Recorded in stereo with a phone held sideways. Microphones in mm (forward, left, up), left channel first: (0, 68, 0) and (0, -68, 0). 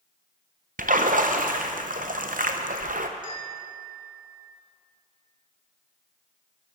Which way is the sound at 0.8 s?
80° right.